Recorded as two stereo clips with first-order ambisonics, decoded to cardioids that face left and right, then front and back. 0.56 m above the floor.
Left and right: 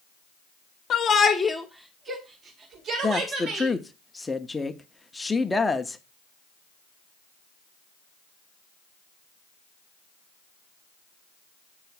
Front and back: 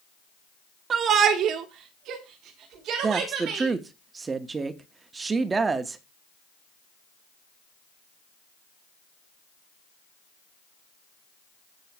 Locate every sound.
0.9 s a shout: 130° left, 1.2 m; by 3.7 s 135° right, 3 m
3.0 s a woman speaking: 155° left, 0.6 m